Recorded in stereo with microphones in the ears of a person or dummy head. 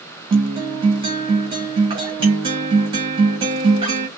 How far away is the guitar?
About 2 m.